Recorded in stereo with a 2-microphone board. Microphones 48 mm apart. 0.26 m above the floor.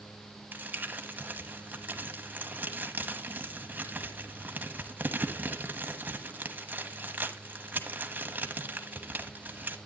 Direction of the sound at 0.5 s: 40° right (ahead or behind).